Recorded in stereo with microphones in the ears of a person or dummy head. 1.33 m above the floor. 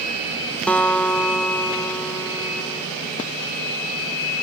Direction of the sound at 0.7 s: 5° left (ahead or behind).